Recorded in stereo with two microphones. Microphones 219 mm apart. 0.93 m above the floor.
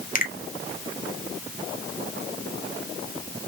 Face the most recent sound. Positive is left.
turn(degrees=40)  # may be behind; listen again after turning